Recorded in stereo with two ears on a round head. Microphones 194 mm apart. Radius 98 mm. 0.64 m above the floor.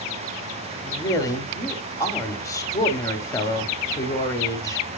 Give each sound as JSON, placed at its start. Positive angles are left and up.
{"t": 0.8, "sound": "a woman speaking", "side_deg": 15, "distance_m": 1.4}